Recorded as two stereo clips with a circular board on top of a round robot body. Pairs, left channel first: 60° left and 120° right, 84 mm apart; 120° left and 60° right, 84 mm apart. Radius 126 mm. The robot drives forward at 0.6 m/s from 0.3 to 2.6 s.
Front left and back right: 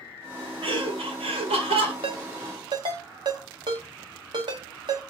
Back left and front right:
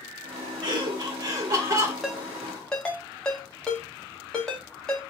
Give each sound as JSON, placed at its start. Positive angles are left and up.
{"t": 0.6, "sound": "laughter", "azimuth_deg": -95, "distance_m": 1.7}
{"t": 2.0, "sound": "a ringtone", "azimuth_deg": -145, "distance_m": 0.7}